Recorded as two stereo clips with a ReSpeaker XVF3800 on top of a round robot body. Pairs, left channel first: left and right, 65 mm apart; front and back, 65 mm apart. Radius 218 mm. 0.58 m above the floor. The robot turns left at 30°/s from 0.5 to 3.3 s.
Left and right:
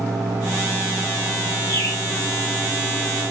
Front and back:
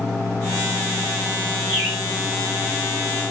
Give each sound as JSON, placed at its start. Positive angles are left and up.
{"t": 1.7, "sound": "a bird", "azimuth_deg": 105, "distance_m": 4.5}